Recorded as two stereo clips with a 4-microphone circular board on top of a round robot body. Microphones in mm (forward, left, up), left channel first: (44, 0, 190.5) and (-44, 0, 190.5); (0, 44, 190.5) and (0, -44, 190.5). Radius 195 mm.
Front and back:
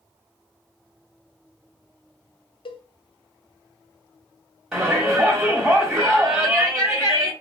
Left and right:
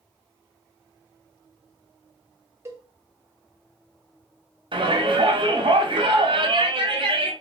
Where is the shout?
100° right, 1.6 m.